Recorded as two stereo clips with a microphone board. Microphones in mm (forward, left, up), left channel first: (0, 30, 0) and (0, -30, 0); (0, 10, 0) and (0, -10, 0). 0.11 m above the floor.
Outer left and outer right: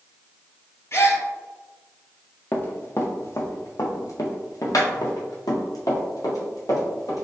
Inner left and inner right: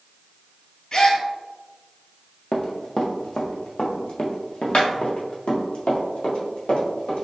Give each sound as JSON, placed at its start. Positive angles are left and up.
{"t": 0.9, "sound": "a gasp", "side_deg": 45, "distance_m": 0.9}
{"t": 2.5, "sound": "running footsteps", "side_deg": 35, "distance_m": 1.0}